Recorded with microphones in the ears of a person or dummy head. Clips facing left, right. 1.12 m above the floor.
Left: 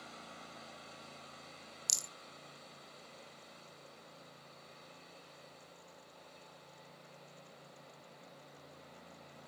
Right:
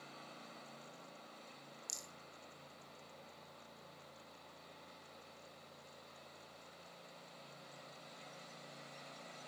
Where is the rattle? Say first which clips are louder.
Left 2 dB; 70° left (ahead or behind), 0.9 m.